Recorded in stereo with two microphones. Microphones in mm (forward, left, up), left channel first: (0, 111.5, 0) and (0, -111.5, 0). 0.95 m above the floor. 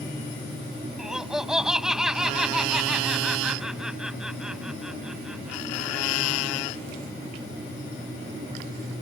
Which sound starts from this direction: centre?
Laughter, at 1.0 s.